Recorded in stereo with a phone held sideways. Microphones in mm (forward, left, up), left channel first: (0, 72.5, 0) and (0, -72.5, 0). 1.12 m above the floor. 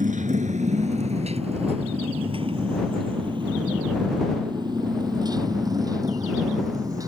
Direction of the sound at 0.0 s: 65° right (ahead or behind).